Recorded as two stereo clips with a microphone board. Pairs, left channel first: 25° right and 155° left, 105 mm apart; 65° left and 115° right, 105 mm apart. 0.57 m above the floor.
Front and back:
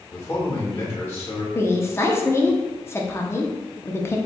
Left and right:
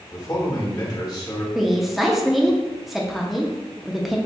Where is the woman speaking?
25° right, 0.6 m.